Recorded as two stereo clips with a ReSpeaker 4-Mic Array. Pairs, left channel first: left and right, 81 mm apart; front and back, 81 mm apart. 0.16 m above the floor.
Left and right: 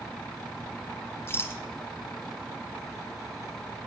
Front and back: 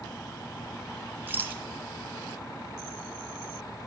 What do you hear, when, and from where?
1.3 s a rattle: 130° left, 0.9 m